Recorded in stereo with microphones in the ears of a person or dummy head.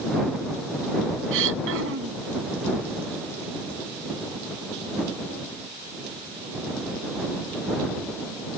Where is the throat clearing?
70° right (ahead or behind).